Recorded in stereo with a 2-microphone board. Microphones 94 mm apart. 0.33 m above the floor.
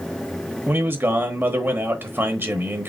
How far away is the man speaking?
About 1.1 m.